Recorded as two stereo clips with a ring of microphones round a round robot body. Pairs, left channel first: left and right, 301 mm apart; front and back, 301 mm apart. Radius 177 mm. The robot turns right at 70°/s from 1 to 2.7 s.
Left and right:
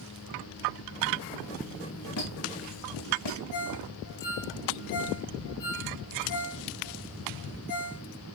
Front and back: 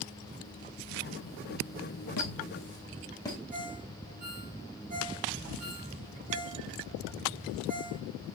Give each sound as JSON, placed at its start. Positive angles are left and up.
{"t": 2.2, "sound": "a squeak", "azimuth_deg": 40, "distance_m": 2.5}
{"t": 3.5, "sound": "a ringtone", "azimuth_deg": 110, "distance_m": 4.5}